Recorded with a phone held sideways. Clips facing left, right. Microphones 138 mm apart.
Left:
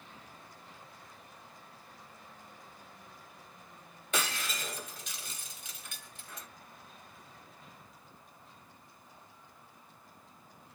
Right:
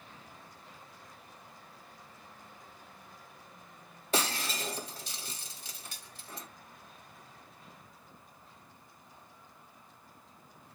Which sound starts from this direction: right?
Breaking glass, at 4.1 s.